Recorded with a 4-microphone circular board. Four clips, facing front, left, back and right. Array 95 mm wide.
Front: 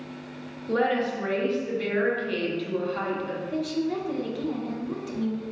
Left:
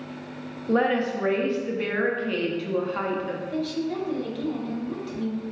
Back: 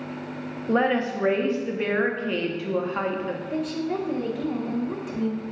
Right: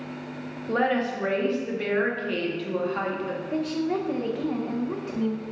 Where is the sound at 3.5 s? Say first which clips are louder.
Right 3 dB, even; 115° right, 0.6 m.